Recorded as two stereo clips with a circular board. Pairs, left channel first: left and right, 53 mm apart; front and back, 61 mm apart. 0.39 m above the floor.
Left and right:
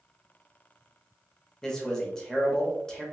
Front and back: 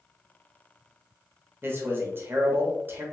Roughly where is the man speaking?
Behind.